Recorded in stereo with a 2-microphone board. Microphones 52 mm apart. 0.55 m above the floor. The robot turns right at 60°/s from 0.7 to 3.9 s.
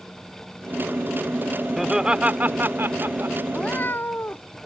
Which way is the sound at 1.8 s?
175° right.